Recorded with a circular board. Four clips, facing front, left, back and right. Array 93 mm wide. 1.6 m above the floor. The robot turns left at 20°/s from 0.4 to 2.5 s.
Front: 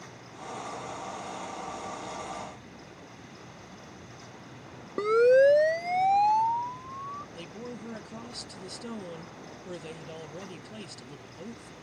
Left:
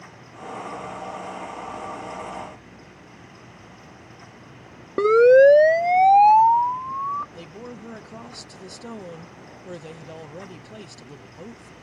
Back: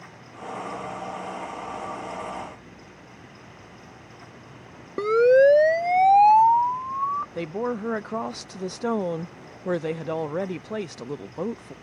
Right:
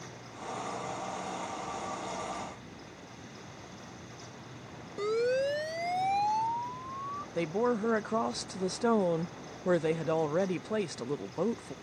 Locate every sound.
5.0 s a siren: 100° left; by 7.2 s 140° left
7.3 s a woman speaking: 145° right